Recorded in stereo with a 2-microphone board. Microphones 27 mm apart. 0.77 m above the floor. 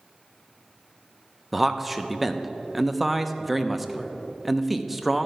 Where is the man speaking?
5° right (ahead or behind), 0.6 m.